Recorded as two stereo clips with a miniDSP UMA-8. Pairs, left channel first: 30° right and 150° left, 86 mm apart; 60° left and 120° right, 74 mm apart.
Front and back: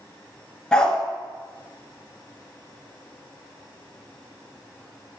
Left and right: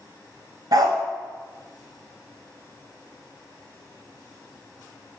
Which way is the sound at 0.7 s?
110° right.